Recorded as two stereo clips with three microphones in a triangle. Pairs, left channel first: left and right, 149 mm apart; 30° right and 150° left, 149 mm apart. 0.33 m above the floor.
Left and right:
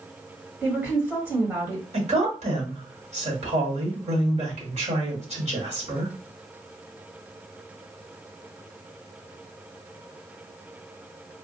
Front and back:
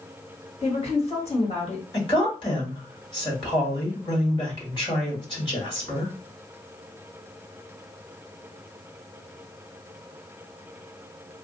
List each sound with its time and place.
0.6 s a woman speaking: 20° right, 1.6 m
1.9 s a woman speaking: 75° right, 1.9 m